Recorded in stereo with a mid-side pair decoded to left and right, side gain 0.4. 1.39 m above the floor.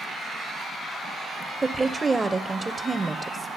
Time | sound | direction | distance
1.6 | a woman speaking | 20° right | 0.5 m